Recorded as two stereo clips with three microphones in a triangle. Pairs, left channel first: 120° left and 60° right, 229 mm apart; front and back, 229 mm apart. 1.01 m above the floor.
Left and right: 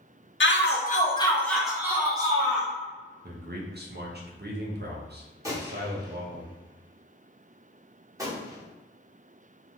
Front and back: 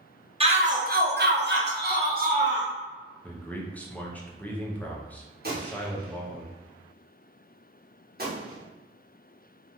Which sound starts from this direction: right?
A man speaking, at 3.2 s.